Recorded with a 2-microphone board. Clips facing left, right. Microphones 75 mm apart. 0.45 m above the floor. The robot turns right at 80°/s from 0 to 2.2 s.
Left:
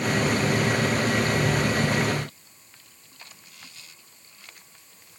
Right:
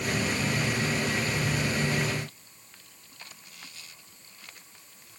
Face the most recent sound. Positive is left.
No sound to turn to.